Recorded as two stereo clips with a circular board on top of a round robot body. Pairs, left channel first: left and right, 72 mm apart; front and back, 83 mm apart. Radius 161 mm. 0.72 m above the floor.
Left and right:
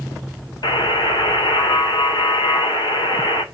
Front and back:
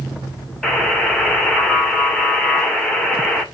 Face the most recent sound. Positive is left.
turn(degrees=85)